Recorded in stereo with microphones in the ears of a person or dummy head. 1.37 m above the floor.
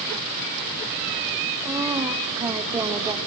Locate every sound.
1.6 s a woman speaking: 20° right (ahead or behind), 1.9 m; by 3.2 s 15° right (ahead or behind), 3 m